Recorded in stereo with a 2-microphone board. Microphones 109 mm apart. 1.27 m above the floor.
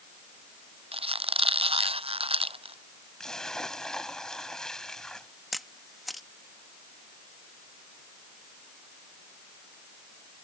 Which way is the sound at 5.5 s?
Centre (ahead or behind).